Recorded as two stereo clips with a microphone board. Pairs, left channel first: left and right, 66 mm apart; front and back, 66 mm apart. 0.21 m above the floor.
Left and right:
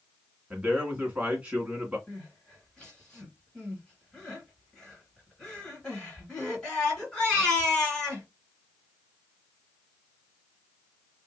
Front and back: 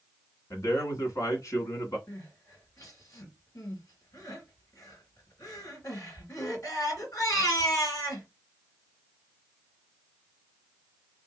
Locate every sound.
0.5 s a man speaking: 20° right, 1.6 m
2.1 s crying: 15° left, 2 m